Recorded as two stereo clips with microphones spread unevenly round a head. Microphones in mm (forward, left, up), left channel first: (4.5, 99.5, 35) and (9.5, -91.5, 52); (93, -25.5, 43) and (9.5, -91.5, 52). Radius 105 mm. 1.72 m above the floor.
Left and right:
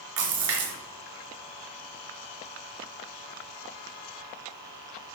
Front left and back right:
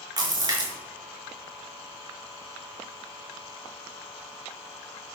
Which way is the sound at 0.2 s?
90° right.